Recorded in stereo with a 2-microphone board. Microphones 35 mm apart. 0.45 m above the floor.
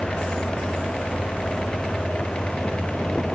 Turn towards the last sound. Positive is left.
No sound to turn to.